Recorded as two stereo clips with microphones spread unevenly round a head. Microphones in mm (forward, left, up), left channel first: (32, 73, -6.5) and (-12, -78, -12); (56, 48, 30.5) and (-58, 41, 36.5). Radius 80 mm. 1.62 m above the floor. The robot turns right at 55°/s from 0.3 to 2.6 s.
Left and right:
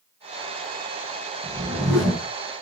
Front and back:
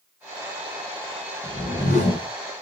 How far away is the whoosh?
About 1.3 m.